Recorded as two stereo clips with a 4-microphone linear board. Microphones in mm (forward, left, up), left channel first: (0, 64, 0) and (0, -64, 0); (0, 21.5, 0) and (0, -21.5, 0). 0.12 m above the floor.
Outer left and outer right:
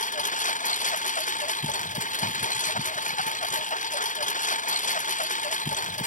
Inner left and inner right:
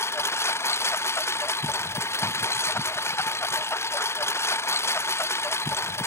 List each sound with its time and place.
0.0 s a lawn mower: 80° left